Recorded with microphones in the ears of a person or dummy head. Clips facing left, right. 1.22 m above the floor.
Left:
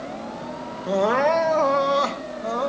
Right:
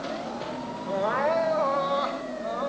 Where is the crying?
55° left (ahead or behind), 1.3 m.